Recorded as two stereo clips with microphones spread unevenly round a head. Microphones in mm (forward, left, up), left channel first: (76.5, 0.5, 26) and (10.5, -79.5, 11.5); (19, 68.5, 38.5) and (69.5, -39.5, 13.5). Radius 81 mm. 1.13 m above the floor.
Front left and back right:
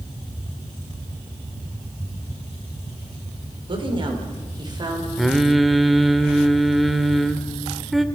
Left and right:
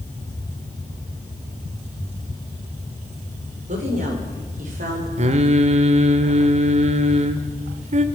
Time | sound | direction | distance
3.7 | a woman speaking | 95° right | 5 m
5.2 | singing | 40° right | 1.8 m